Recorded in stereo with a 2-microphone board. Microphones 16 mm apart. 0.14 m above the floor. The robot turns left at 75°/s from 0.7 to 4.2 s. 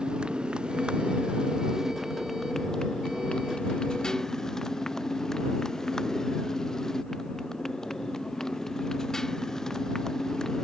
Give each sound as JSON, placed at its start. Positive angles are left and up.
{"t": 0.0, "sound": "a motorcycle", "azimuth_deg": -65}